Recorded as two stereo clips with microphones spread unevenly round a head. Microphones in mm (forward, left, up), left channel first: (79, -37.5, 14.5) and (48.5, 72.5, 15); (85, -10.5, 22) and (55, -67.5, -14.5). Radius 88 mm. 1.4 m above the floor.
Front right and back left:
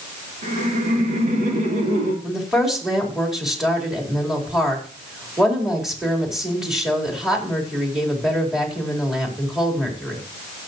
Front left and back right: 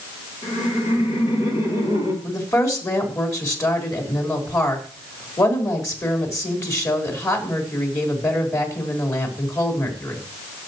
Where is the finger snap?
No finger snap in this recording.